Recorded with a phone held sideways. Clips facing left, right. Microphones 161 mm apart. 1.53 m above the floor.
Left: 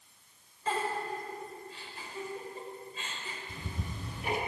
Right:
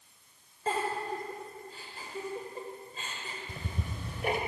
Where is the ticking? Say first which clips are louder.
Right 2 dB; 60° right (ahead or behind), 3.5 m.